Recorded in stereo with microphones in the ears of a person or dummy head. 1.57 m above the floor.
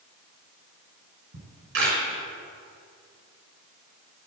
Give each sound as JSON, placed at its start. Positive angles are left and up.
{"t": 1.3, "sound": "a camera shutter", "side_deg": -65, "distance_m": 6.5}